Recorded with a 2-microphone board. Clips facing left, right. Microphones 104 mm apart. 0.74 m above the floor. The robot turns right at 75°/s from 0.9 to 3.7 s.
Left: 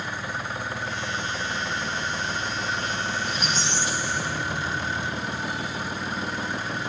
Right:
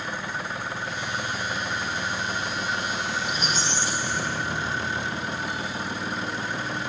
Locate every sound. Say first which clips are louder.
3.2 s a squeak: even; 165° right, 2.5 m; by 5.2 s 125° right, 2.5 m